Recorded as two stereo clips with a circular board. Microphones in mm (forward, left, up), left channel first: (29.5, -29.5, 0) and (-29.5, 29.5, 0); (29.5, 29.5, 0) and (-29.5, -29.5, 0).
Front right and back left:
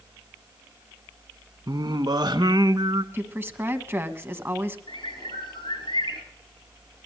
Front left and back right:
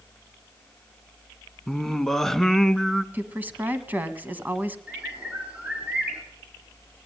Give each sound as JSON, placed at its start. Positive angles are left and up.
{"t": 1.7, "sound": "singing", "azimuth_deg": 130, "distance_m": 0.6}
{"t": 3.1, "sound": "a woman speaking", "azimuth_deg": 175, "distance_m": 1.1}
{"t": 4.9, "sound": "a bird", "azimuth_deg": -60, "distance_m": 3.5}